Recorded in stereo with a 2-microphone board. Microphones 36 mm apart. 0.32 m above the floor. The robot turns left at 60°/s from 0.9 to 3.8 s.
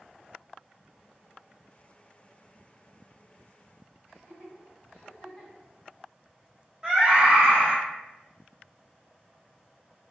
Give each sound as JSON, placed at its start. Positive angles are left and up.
{"t": 4.1, "sound": "laughter", "side_deg": 45, "distance_m": 1.9}
{"t": 6.8, "sound": "a scream", "side_deg": 0, "distance_m": 1.0}